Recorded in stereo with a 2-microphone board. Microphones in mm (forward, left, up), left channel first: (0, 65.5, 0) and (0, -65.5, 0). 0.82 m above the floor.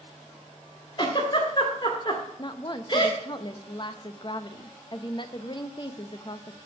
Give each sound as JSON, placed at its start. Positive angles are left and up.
{"t": 1.0, "sound": "a giggle", "side_deg": 35, "distance_m": 1.8}
{"t": 2.4, "sound": "a woman speaking", "side_deg": 35, "distance_m": 0.7}